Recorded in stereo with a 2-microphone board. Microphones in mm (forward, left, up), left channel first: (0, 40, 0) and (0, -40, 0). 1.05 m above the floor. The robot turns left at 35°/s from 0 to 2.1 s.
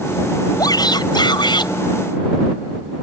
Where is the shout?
120° left; by 1.7 s 80° left.